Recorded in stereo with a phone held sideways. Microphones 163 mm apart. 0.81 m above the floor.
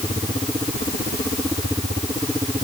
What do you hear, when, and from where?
Only background noise.